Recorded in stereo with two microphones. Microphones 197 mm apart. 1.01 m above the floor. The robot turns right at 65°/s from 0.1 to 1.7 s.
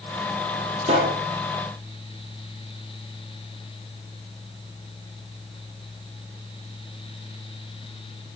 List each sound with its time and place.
0.8 s a pop: 40° right (ahead or behind), 6 m; by 1.2 s 15° right (ahead or behind), 6 m